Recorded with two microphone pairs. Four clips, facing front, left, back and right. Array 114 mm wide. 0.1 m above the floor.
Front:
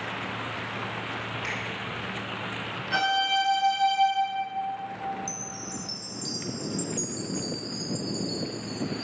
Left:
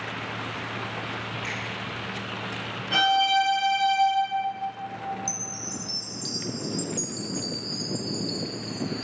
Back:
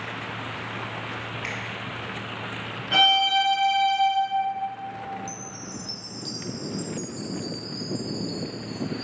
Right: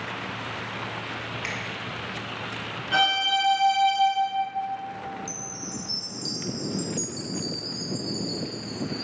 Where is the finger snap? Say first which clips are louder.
Even, even; 145° right, 1.5 m.